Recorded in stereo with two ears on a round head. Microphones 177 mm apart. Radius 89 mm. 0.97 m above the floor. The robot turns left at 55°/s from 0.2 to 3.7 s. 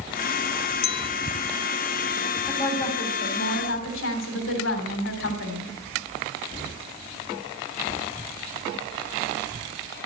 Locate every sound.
0.8 s a clink: 75° left (ahead or behind), 1.2 m; by 1.1 s 85° left, 1.2 m
2.5 s a woman speaking: 170° left, 3.5 m; by 5.7 s 105° left, 3.5 m